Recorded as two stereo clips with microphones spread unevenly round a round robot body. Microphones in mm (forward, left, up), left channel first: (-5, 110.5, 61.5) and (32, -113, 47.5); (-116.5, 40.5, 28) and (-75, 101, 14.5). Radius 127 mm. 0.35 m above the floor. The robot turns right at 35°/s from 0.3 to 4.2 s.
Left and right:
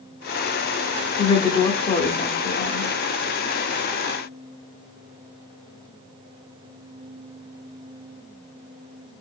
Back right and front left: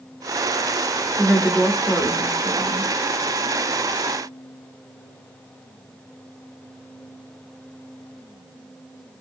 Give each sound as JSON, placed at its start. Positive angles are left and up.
{"t": 1.2, "sound": "a woman speaking", "azimuth_deg": 55, "distance_m": 0.9}